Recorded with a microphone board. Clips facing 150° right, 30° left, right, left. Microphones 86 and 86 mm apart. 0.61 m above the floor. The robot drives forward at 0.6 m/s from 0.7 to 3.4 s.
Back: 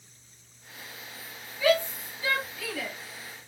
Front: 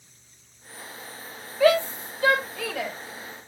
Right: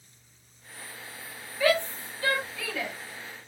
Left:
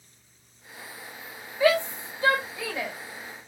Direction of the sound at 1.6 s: 20° left.